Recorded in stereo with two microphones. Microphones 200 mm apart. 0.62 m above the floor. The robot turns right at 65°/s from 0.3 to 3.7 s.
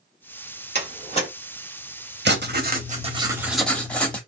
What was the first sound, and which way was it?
A door slam, 60° left (ahead or behind).